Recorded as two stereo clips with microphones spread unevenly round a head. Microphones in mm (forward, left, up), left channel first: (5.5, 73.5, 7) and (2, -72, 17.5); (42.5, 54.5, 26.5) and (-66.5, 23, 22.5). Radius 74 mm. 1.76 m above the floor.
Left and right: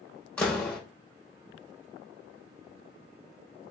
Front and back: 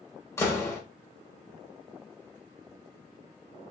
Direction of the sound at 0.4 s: 5° left.